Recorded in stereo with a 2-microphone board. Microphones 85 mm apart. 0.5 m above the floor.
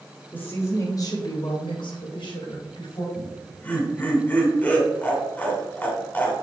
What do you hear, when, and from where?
0.3 s a woman speaking: 20° left (ahead or behind), 1.8 m; by 3.0 s 65° left (ahead or behind), 3 m
3.1 s laughter: 20° left (ahead or behind), 2 m